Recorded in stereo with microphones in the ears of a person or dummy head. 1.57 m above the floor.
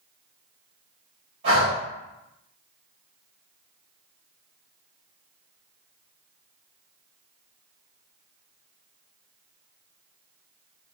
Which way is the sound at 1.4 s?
30° right (ahead or behind).